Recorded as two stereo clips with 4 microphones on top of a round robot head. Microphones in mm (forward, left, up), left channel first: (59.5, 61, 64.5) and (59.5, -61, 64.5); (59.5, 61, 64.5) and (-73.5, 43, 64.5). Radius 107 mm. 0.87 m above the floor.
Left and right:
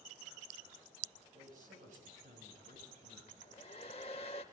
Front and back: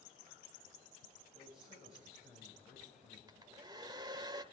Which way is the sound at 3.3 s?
140° left.